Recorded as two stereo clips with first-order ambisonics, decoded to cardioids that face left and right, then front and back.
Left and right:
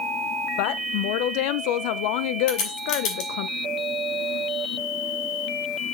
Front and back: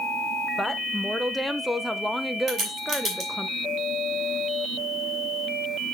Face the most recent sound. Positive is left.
turn(degrees=120)